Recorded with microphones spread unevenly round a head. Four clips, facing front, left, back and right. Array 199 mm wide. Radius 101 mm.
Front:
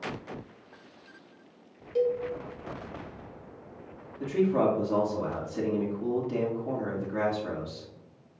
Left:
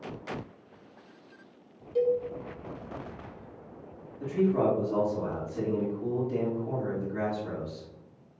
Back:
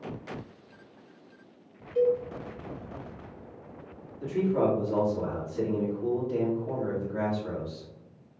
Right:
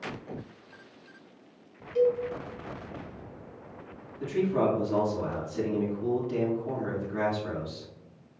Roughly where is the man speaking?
Ahead.